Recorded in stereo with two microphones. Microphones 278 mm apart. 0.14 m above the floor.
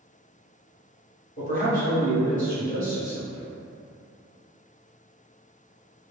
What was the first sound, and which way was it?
A man speaking, 30° left (ahead or behind).